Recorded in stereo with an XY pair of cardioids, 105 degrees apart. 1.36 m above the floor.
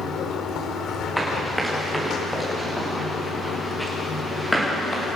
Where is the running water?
70° left, 3.5 m.